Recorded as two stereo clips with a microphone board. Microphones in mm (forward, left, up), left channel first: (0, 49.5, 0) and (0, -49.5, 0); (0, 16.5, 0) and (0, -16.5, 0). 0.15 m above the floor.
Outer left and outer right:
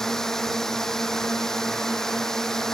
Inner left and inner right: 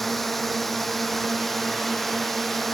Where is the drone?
5° left (ahead or behind).